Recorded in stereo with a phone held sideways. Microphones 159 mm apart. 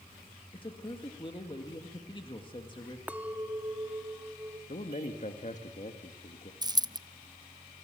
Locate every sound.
0.5 s a man speaking: 35° left (ahead or behind), 2 m
3.1 s a clink: 10° right (ahead or behind), 1.0 m
4.7 s a man speaking: 50° left (ahead or behind), 1.6 m
6.6 s a dropped coin: 25° right (ahead or behind), 0.5 m